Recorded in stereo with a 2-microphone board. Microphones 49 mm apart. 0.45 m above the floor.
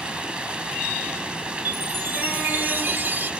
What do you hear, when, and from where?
0.0 s running water: 25° right (ahead or behind), 1.6 m
1.6 s a chime: 45° right (ahead or behind), 0.8 m